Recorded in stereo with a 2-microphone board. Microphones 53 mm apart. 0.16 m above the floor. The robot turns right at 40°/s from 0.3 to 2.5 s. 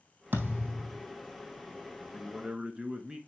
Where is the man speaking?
Centre (ahead or behind), 1.6 m; by 3.2 s 15° right (ahead or behind), 1.6 m.